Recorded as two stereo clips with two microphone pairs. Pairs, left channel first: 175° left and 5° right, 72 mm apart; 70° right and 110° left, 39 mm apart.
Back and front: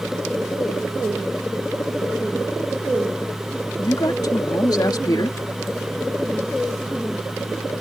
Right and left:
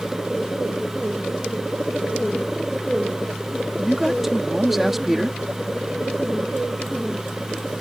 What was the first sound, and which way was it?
A man speaking, 160° right.